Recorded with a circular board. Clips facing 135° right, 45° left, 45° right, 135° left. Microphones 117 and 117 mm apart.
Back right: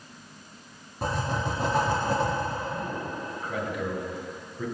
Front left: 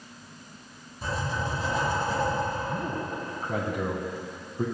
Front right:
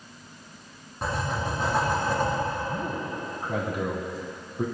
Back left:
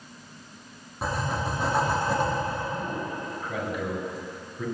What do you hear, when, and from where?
1.0 s writing: 140° right, 4.5 m
2.7 s a man speaking: straight ahead, 2.5 m